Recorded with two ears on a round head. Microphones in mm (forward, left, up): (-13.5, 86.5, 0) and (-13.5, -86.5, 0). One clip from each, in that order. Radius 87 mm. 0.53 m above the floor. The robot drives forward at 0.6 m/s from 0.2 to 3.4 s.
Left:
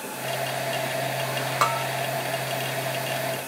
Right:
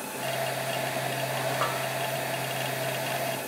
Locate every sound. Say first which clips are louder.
1.6 s a bell: left 5 dB; 65° left (ahead or behind), 1.1 m; by 1.9 s 75° left (ahead or behind), 1.1 m